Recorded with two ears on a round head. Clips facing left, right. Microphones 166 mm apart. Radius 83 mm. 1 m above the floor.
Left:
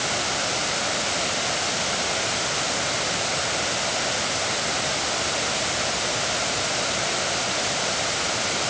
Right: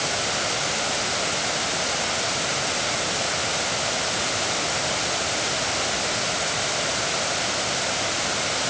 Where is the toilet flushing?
No toilet flushing in this recording.